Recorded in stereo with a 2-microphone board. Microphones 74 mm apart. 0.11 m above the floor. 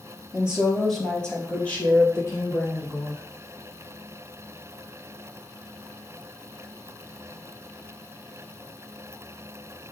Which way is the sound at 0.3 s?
15° right (ahead or behind).